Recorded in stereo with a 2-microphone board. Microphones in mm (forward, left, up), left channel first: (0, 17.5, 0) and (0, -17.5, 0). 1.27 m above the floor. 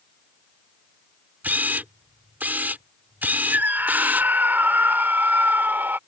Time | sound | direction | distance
1.4 | a camera shutter | 65° right (ahead or behind) | ?
3.5 | a scream | 70° right (ahead or behind) | ?